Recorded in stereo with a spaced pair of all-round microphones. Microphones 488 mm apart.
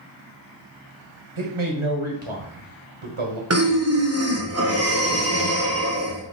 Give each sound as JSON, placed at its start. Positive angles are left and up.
{"t": 1.4, "sound": "a man speaking", "side_deg": -80, "distance_m": 1.1}
{"t": 3.5, "sound": "breathing", "side_deg": -30, "distance_m": 0.6}